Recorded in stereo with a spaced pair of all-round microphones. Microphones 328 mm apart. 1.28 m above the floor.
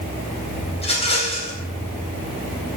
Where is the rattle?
20° left (ahead or behind), 4 m.